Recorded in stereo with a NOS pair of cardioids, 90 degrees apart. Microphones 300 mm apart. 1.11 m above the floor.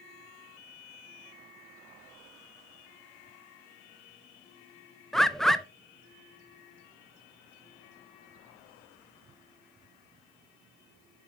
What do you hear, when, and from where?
5.1 s a bird: straight ahead, 0.6 m